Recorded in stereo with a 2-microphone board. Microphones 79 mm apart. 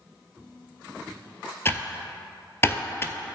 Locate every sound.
1.6 s typing on a keyboard: 30° left (ahead or behind), 0.5 m